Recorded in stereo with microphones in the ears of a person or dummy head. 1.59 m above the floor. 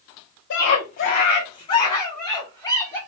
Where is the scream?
65° left (ahead or behind), 0.8 m; by 3.0 s 15° left (ahead or behind), 3 m.